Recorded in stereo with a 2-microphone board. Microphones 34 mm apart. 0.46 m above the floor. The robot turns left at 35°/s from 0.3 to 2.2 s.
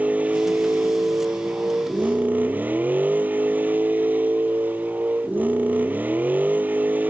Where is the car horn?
I don't hear a car horn.